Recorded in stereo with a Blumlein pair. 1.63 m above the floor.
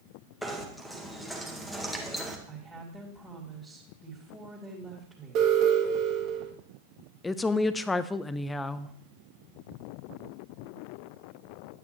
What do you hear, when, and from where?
0.4 s knocking: straight ahead, 1.8 m
2.5 s a woman speaking: straight ahead, 3 m
5.3 s an alarm: 40° right, 2 m
7.2 s a woman speaking: 10° left, 0.7 m